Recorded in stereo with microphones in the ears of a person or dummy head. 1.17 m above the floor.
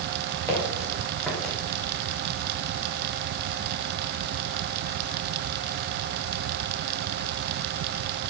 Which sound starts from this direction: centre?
Footsteps, at 0.5 s.